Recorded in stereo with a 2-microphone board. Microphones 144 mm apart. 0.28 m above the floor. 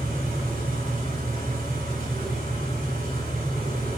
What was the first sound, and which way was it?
An engine running, 65° right (ahead or behind).